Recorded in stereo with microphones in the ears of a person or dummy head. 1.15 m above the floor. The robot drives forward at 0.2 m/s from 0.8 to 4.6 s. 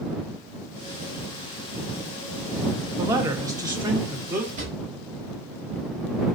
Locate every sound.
3.0 s a man speaking: 20° right (ahead or behind), 0.5 m; by 4.5 s 10° right (ahead or behind), 0.8 m
4.6 s a drawer: 20° right (ahead or behind), 0.8 m